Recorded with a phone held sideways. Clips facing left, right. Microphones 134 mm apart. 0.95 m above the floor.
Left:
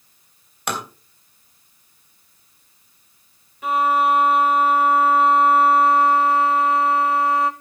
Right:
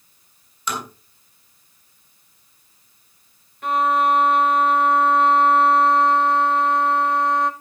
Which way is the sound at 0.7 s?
65° left (ahead or behind).